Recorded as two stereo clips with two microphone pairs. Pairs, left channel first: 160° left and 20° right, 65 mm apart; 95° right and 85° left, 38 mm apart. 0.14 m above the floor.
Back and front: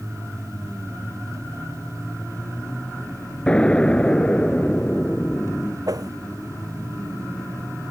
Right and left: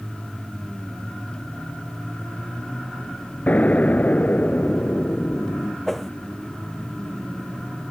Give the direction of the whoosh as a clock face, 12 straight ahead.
12 o'clock.